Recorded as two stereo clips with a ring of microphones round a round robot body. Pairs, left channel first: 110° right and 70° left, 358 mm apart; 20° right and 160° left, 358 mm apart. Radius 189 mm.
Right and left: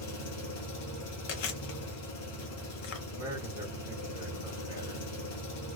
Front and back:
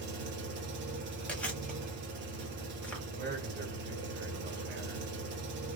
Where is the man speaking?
140° left, 1.3 m.